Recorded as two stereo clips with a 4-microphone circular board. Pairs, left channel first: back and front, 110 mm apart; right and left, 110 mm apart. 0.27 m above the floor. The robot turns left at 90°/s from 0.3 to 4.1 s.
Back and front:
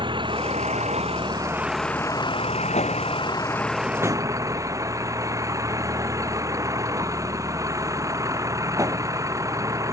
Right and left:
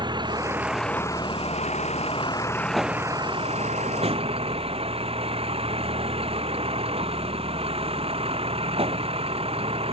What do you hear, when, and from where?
0.0 s a vehicle: 45° left; by 9.9 s 60° left